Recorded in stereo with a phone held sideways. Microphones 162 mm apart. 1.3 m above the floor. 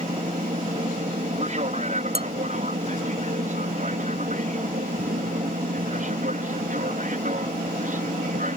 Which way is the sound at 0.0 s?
50° right (ahead or behind).